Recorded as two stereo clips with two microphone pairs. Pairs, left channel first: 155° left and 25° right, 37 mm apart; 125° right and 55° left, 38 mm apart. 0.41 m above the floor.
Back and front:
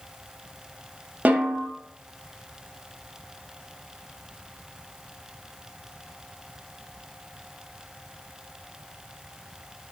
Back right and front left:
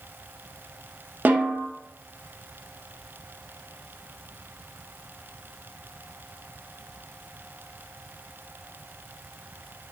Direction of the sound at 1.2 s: 20° left.